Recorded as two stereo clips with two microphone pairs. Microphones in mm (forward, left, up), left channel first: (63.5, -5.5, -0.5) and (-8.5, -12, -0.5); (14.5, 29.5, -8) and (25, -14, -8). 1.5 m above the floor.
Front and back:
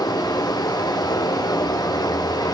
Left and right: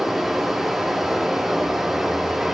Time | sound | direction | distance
0.0 | running water | 10° left | 4 m